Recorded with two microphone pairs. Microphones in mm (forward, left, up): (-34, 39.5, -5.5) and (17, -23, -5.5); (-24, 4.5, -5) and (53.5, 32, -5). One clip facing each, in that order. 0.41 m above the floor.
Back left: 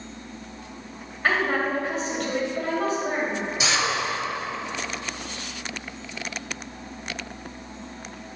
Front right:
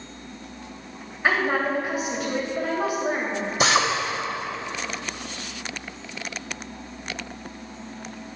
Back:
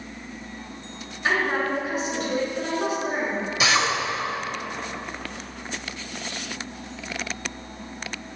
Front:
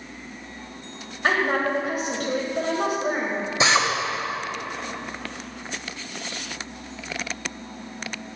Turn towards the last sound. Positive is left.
turn(degrees=-35)